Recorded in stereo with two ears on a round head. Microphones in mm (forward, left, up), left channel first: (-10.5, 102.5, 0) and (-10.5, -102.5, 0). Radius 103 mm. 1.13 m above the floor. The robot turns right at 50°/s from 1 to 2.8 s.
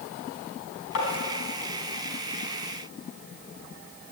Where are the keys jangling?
I don't hear keys jangling.